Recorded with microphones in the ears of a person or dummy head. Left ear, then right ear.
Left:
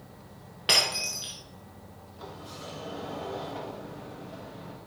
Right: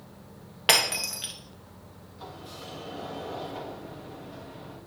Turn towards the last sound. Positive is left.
turn(degrees=0)  # may be behind; listen again after turning